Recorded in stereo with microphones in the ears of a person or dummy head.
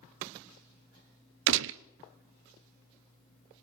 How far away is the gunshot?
About 0.7 m.